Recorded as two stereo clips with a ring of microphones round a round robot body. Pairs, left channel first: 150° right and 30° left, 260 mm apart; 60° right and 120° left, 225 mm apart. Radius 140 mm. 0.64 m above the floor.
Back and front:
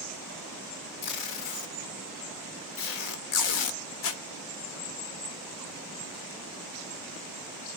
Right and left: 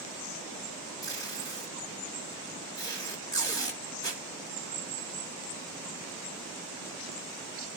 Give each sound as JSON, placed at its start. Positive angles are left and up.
{"t": 1.0, "sound": "tape being pulled", "azimuth_deg": -135, "distance_m": 0.8}